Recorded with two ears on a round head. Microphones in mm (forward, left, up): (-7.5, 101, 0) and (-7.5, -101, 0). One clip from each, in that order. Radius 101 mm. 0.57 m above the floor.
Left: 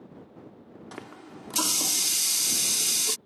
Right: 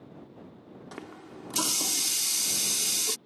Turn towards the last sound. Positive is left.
turn(degrees=5)  # may be behind; listen again after turning